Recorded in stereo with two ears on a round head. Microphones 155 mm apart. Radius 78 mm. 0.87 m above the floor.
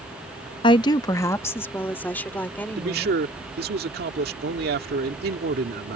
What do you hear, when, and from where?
0.6 s a woman speaking: 30° left (ahead or behind); by 3.2 s 10° left (ahead or behind)
2.8 s a man speaking: 65° right (ahead or behind)